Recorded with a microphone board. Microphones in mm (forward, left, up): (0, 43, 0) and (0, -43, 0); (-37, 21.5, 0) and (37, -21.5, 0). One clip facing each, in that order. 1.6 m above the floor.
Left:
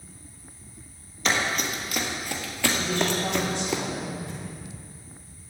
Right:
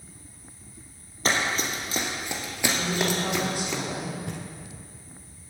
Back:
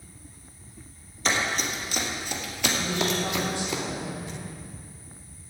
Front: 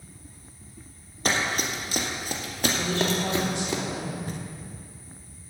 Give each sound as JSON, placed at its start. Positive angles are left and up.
{"t": 1.2, "sound": "running footsteps", "azimuth_deg": -50, "distance_m": 2.5}
{"t": 2.8, "sound": "a woman speaking", "azimuth_deg": -10, "distance_m": 5.5}
{"t": 4.3, "sound": "knocking", "azimuth_deg": -75, "distance_m": 0.9}